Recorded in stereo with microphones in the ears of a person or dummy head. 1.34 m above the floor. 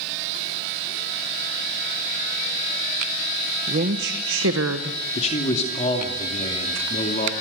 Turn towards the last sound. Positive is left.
turn(degrees=35)  # may be behind; listen again after turning